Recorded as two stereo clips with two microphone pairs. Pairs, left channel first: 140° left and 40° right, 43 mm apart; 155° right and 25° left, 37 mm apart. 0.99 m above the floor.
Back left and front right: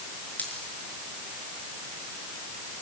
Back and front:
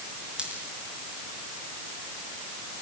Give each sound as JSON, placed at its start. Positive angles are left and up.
{"t": 0.4, "sound": "a dropped coin", "azimuth_deg": 90, "distance_m": 5.5}